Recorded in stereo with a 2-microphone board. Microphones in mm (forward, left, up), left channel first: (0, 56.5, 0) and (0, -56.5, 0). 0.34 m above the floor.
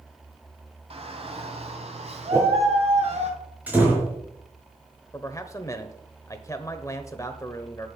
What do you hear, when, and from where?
0.9 s a shout: 60° right (ahead or behind), 2.5 m; by 3.3 s 70° right (ahead or behind), 3.5 m
2.3 s a whoosh: 30° right (ahead or behind), 6.5 m
3.7 s a door slam: 15° right (ahead or behind), 4.5 m
5.1 s a man speaking: 25° left (ahead or behind), 1.0 m